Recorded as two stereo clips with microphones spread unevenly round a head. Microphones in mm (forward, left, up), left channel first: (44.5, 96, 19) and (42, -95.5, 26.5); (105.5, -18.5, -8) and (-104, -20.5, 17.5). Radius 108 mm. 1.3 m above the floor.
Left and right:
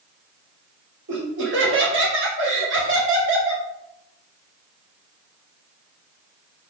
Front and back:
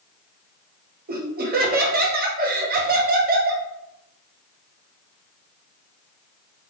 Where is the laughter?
130° right, 0.8 m.